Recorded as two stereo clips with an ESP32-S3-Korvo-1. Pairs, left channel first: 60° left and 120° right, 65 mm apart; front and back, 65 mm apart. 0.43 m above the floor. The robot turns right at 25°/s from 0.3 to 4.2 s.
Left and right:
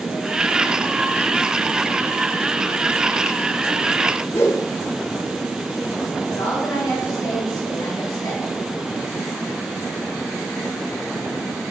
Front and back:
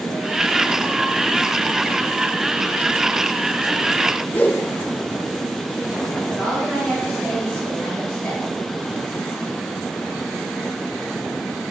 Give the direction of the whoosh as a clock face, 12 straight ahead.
10 o'clock.